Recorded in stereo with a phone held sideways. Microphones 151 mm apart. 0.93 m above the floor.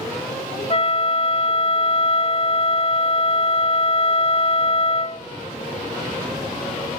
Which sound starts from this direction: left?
A flute, at 0.7 s.